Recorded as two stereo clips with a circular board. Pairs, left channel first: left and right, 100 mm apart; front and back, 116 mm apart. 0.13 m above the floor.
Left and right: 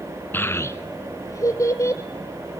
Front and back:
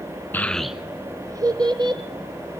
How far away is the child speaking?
About 0.8 m.